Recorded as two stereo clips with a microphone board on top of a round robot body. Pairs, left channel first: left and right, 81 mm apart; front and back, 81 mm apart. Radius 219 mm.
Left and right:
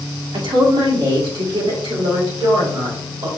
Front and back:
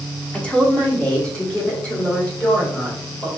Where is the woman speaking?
75° right, 1.7 m.